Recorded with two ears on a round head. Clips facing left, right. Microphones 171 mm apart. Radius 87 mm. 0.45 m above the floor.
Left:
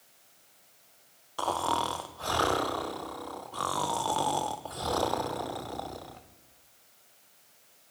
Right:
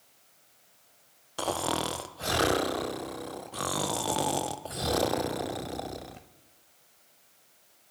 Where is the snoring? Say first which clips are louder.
Even; 20° right (ahead or behind), 0.5 m.